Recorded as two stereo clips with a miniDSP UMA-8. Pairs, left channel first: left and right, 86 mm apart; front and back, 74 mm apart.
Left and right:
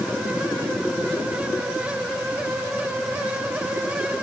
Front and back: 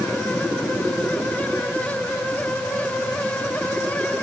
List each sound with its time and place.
Only background noise.